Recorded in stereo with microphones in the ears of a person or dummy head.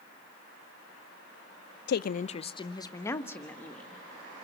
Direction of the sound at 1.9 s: 65° left (ahead or behind).